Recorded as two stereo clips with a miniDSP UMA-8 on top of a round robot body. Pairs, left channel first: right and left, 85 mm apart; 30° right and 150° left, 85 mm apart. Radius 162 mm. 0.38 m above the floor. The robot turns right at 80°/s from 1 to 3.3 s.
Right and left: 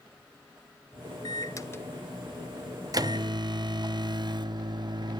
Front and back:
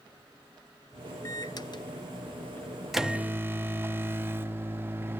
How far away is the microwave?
About 0.9 m.